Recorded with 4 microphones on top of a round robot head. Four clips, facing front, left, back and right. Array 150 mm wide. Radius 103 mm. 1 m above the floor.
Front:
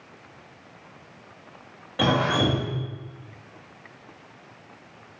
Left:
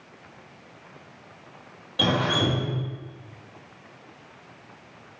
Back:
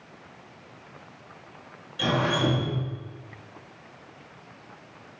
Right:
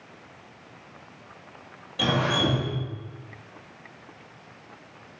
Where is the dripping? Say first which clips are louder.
Left 1 dB, front 3 dB; 20° left, 1.8 m.